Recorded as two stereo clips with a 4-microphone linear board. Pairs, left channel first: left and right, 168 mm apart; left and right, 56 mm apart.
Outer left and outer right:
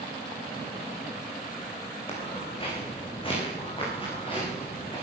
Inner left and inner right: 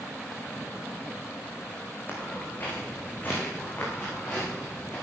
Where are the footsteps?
35° left (ahead or behind), 5.5 m; by 5.0 s 30° left (ahead or behind), 8.5 m.